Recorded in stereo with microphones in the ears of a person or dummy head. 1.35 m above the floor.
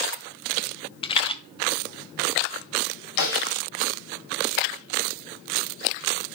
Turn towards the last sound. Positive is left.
turn(degrees=70)  # may be behind; listen again after turning